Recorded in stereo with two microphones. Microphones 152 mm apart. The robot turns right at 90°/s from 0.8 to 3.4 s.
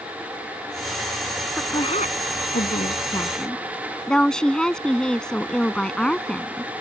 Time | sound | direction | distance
1.6 | a woman speaking | 10° left | ?